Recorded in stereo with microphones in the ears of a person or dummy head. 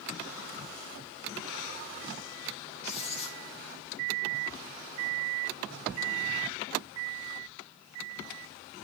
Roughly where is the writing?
Left.